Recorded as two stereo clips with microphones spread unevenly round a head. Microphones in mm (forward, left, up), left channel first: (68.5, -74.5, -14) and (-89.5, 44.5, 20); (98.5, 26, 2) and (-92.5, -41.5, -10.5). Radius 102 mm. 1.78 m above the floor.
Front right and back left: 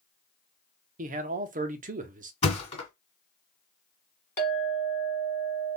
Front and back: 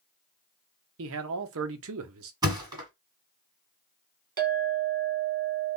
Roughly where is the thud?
Right.